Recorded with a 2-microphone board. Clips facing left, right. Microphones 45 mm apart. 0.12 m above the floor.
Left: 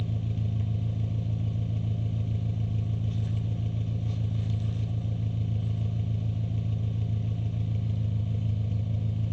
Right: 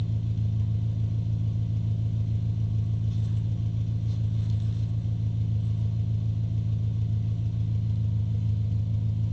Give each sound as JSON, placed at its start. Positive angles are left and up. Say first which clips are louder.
{"t": 0.0, "sound": "an engine running", "louder": "right 1 dB", "side_deg": 45, "distance_m": 0.9}